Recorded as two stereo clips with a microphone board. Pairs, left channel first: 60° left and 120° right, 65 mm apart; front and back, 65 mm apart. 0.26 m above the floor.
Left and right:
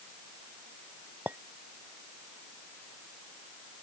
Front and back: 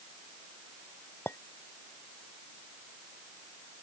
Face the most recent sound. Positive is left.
turn(degrees=-55)